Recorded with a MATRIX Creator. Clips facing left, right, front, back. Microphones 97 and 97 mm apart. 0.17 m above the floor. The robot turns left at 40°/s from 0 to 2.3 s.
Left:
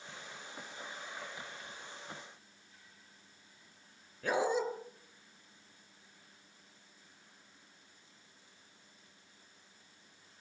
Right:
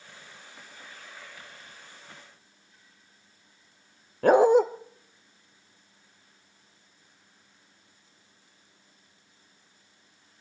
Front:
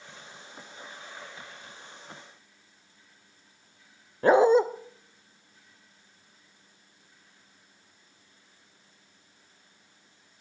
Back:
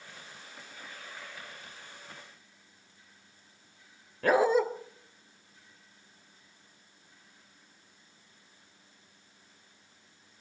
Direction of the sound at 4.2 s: 65° right.